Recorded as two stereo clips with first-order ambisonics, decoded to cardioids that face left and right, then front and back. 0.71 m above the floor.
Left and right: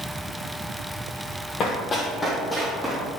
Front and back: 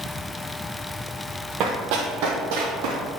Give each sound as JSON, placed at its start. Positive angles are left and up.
{"t": 1.6, "sound": "running footsteps", "azimuth_deg": 145, "distance_m": 1.4}